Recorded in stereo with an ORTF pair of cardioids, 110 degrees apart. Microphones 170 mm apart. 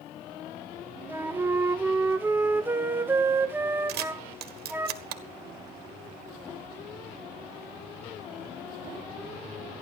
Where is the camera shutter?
70° right, 1.5 m.